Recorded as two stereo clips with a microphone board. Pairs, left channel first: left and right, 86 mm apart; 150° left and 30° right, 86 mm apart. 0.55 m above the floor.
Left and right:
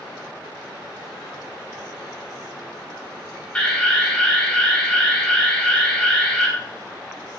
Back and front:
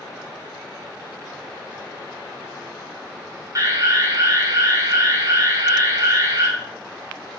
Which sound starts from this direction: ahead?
An alarm, at 3.5 s.